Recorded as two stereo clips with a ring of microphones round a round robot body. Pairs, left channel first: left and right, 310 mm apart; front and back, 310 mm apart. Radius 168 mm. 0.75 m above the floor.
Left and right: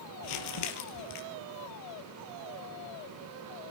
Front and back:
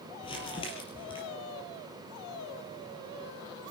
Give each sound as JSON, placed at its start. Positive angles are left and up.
{"t": 0.2, "sound": "crumpling", "azimuth_deg": 75, "distance_m": 3.5}